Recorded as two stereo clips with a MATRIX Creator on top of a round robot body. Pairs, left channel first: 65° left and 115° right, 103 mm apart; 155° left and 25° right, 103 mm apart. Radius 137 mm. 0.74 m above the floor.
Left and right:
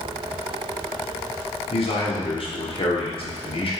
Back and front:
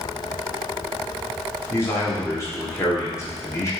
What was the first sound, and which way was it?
A man speaking, 95° left.